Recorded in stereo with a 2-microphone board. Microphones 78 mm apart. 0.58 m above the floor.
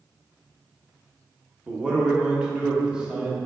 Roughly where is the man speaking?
Centre.